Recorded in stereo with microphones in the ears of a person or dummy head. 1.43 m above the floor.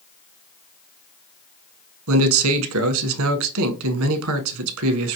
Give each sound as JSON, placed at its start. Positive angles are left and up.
{"t": 2.1, "sound": "a man speaking", "side_deg": -80, "distance_m": 1.2}